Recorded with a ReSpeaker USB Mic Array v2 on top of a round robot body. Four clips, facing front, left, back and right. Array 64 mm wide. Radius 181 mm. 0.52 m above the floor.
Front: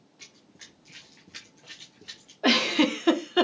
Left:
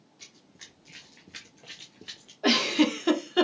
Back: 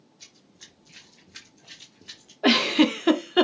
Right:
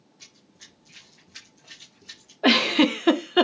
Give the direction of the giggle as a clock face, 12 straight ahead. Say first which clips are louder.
Right 4 dB, back 3 dB; 3 o'clock.